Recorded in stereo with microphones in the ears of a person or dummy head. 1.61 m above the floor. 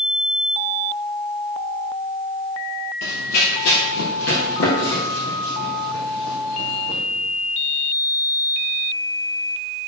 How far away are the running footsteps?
About 3 m.